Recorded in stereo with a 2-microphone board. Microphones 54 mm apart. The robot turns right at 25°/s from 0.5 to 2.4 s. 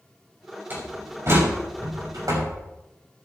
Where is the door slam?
35° right (ahead or behind), 5.5 m; by 2.5 s 75° right (ahead or behind), 5.5 m.